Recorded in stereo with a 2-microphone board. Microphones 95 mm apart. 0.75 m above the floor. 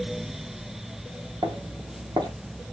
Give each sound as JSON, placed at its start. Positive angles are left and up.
{"t": 1.4, "sound": "footsteps", "side_deg": -45, "distance_m": 1.1}